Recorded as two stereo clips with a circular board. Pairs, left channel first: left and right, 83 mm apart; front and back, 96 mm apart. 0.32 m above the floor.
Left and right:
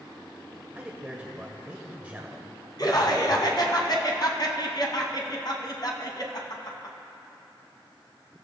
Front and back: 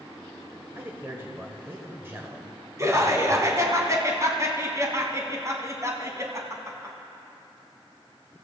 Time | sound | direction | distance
0.8 | a man speaking | 145° right | 1.5 m
2.8 | laughter | 125° left | 2.5 m